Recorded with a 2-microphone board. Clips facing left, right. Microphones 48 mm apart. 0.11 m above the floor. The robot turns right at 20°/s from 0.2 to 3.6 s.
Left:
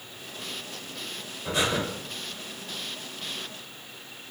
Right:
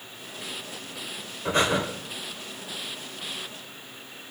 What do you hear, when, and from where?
1.4 s breathing: 40° right (ahead or behind), 1.3 m; by 1.8 s 50° right (ahead or behind), 1.3 m